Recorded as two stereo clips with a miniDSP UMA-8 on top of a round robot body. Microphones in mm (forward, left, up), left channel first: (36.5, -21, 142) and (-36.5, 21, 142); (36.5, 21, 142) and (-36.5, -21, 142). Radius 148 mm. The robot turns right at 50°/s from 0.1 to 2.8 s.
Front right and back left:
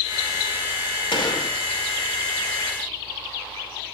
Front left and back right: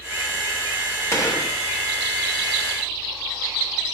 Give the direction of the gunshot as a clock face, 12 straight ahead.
1 o'clock.